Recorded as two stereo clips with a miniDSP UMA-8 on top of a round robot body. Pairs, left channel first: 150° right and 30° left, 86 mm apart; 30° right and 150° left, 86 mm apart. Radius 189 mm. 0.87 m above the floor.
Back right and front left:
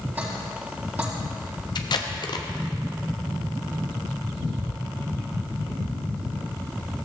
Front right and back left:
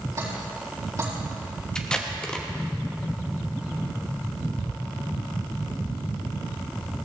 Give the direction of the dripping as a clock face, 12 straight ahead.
9 o'clock.